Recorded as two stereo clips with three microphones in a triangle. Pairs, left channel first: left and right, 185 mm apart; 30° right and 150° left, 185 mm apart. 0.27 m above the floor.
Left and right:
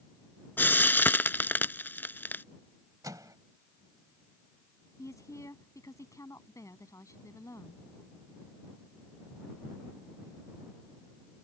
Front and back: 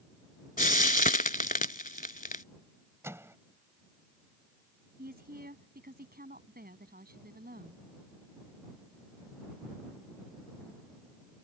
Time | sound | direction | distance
0.6 | frying | 10° left | ?
3.0 | a microwave | 145° right | ?
5.0 | a woman speaking | 160° left | ?